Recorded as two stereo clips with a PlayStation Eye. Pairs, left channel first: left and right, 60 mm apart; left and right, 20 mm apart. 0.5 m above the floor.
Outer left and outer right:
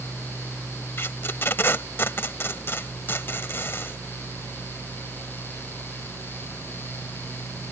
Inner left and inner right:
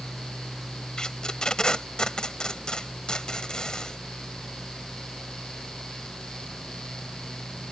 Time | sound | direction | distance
1.0 | tape being pulled | 40° left (ahead or behind) | ?